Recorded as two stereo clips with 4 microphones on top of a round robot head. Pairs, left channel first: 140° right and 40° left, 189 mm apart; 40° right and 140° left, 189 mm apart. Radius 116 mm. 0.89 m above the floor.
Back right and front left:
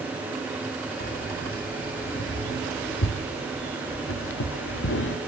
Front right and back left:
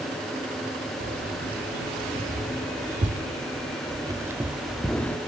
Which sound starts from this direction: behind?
Keys jangling, at 1.0 s.